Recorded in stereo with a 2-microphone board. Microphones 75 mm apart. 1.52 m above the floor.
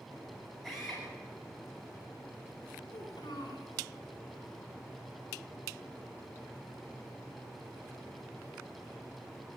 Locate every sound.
0.6 s a drill: 5° right (ahead or behind), 9 m
2.9 s a child speaking: 80° left, 3.5 m